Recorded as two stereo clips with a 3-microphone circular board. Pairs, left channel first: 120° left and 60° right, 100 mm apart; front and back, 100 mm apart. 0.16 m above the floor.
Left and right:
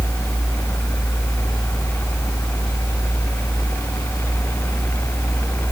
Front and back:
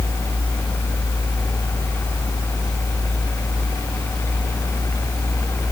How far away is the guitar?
I don't hear a guitar.